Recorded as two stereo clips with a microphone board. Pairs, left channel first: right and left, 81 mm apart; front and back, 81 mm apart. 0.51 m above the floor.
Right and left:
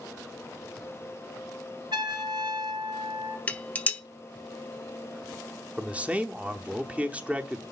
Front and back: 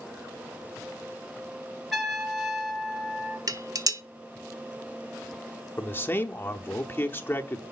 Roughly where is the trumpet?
Left.